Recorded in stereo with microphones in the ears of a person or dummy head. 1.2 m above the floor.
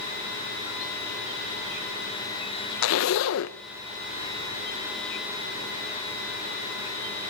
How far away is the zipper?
About 0.9 m.